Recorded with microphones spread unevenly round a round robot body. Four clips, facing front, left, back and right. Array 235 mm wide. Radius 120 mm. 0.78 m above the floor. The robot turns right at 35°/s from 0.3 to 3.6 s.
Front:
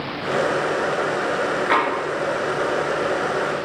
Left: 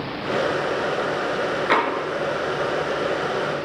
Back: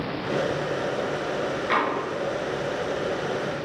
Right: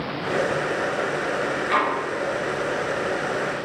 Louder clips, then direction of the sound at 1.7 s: Left 2 dB, front 4 dB; 60° left.